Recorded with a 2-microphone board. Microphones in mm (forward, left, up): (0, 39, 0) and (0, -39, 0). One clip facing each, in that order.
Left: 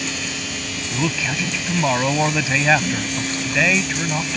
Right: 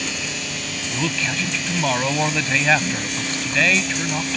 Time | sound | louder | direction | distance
0.9 | a man speaking | left 2 dB | 10° left (ahead or behind) | ?